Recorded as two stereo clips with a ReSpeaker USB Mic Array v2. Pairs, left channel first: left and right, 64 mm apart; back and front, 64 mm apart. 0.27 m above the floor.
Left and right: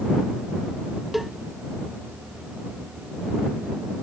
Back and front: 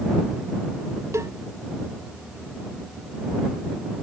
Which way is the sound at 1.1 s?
5° right.